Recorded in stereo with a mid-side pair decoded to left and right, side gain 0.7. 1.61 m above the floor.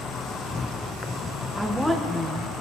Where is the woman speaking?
5° right, 1.8 m.